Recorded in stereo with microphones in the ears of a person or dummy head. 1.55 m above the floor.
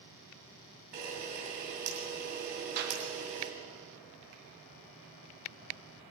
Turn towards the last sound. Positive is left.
turn(degrees=-50)  # may be behind; listen again after turning